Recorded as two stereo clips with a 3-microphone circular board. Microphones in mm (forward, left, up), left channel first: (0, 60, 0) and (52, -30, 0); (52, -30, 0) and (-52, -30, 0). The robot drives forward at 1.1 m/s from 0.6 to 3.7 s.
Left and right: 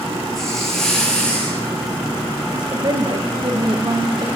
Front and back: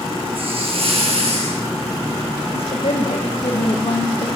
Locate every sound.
0.3 s a hiss: 155° right, 6.5 m
2.5 s a woman speaking: 15° right, 6.5 m; by 4.3 s 20° right, 5.5 m